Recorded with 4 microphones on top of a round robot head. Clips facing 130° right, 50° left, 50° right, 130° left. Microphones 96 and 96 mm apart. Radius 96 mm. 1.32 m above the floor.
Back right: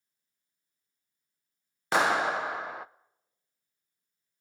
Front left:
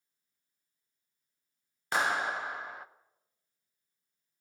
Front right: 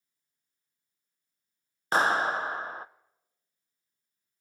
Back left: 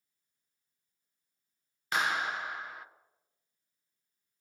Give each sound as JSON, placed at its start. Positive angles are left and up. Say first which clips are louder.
{"t": 1.9, "sound": "a clap", "louder": "back right 5 dB, front right 7 dB", "azimuth_deg": -110, "distance_m": 0.6}